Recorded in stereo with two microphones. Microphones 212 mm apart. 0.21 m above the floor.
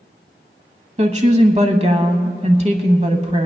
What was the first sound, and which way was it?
A woman speaking, 30° right (ahead or behind).